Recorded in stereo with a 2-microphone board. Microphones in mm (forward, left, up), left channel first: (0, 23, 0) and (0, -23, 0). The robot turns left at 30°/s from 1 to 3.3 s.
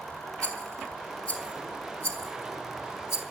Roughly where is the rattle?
Centre.